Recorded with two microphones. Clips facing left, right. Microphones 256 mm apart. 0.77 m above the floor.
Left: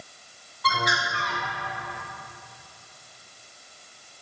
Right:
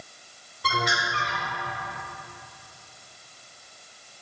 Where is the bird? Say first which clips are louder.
Right 1 dB; 35° right (ahead or behind), 2.5 m.